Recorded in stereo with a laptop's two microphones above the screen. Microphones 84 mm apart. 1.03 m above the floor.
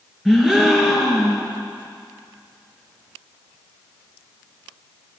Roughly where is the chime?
No chime in this recording.